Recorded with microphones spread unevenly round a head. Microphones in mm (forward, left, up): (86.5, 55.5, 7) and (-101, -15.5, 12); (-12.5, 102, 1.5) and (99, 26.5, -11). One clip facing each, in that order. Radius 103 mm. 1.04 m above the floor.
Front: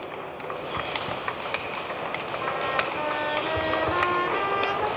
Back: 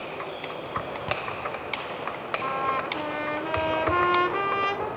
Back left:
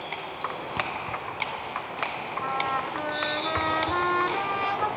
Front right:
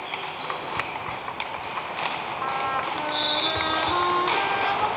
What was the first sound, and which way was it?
A trumpet, 135° right.